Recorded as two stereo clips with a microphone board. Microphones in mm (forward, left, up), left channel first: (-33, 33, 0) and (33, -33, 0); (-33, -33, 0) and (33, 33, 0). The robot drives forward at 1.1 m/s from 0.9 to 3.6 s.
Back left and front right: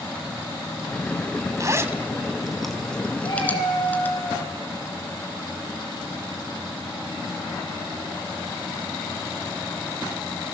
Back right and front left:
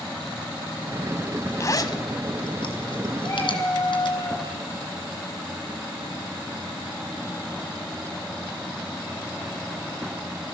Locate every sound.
1.6 s a zipper: 85° right, 1.2 m; by 4.2 s 155° right, 2.5 m
3.2 s a cat meowing: 175° left, 4 m